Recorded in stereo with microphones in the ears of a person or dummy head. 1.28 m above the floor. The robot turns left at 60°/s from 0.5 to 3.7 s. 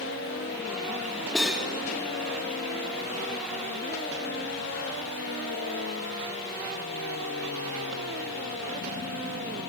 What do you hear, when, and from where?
1.4 s cutlery clinking: 5° left (ahead or behind), 1.7 m; by 1.7 s 15° right (ahead or behind), 1.7 m